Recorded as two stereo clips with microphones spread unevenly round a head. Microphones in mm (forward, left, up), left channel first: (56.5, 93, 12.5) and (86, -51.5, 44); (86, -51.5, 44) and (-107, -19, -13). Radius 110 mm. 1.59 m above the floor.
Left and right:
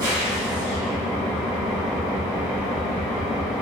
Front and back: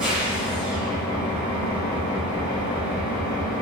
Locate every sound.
0.0 s an engine running: 85° right, 1.3 m